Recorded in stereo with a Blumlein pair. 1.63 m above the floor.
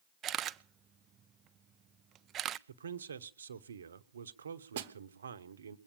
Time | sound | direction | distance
0.2 | a camera shutter | 30° right | 0.6 m
2.7 | a man speaking | 70° right | 1.1 m
4.8 | a snare drum | 55° right | 1.2 m